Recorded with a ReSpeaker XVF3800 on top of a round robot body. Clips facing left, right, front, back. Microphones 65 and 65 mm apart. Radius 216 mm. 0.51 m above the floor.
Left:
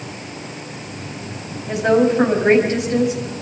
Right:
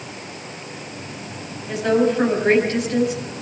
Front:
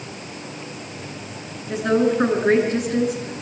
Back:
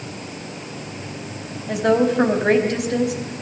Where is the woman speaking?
160° left, 5 m.